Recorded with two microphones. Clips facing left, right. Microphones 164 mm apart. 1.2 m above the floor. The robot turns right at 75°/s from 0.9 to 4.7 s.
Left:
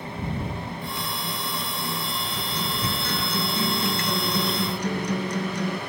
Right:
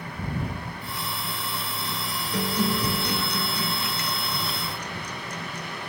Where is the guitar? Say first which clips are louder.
Right 10 dB; 70° right; by 5.8 s 110° left.